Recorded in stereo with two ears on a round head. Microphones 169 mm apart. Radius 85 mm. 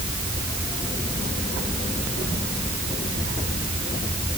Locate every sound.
Only background noise.